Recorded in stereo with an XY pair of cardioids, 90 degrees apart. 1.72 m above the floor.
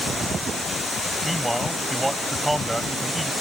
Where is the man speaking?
10° right.